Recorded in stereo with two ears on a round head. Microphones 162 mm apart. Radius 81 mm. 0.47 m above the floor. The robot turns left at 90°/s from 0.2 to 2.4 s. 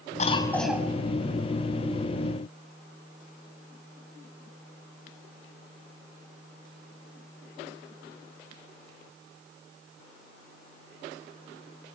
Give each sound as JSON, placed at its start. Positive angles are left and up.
{"t": 0.2, "sound": "a cough", "azimuth_deg": 40, "distance_m": 3.0}